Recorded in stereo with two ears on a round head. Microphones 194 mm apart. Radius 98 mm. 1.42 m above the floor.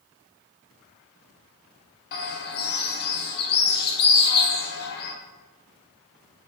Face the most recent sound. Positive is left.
turn(degrees=45)  # may be behind; listen again after turning